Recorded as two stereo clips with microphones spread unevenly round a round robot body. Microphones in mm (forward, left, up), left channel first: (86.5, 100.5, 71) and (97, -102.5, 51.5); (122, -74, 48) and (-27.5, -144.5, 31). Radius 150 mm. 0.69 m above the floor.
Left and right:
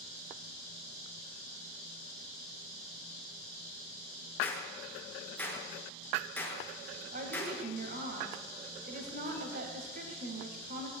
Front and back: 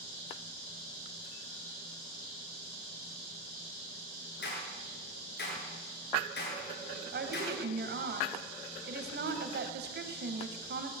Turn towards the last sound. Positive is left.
turn(degrees=-145)